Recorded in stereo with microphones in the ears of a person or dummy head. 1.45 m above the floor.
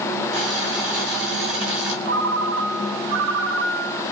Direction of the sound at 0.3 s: 60° right (ahead or behind).